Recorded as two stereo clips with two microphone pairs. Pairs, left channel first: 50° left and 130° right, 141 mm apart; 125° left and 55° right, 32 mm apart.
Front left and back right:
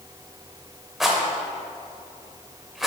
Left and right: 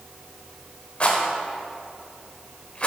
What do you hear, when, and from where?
1.0 s a rattle: 145° left, 0.9 m